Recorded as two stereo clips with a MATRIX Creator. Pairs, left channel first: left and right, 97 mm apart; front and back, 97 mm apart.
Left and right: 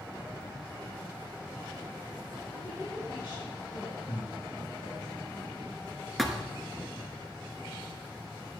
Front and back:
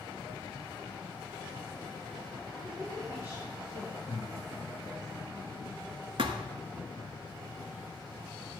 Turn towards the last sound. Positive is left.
turn(degrees=180)